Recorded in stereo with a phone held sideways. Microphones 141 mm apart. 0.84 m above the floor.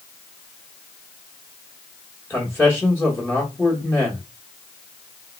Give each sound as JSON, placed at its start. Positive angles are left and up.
{"t": 2.3, "sound": "a man speaking", "side_deg": 15, "distance_m": 1.1}